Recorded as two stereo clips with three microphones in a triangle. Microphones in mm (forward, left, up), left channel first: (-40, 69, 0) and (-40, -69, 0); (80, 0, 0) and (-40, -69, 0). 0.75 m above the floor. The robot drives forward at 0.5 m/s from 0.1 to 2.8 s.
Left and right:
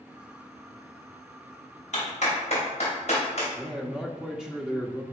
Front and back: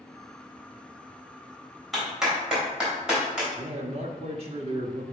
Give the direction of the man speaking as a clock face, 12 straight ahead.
6 o'clock.